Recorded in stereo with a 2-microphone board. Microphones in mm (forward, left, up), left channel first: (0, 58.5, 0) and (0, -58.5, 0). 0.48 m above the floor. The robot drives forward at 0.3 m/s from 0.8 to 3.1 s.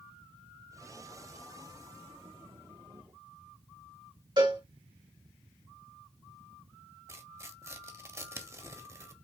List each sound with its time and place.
4.4 s a cowbell: 45° right (ahead or behind), 3 m
7.1 s tearing paper: 25° right (ahead or behind), 1.0 m